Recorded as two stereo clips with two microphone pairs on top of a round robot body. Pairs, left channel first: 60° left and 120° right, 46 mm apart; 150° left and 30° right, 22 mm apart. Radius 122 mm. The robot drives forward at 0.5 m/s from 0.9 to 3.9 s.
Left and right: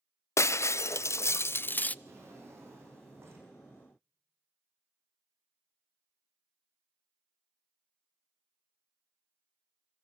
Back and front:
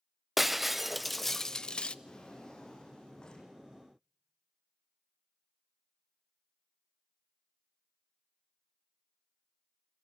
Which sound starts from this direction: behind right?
A drawer, at 2.0 s.